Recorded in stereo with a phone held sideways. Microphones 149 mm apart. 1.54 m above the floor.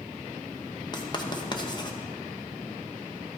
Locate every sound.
0.9 s writing: 30° left (ahead or behind), 0.9 m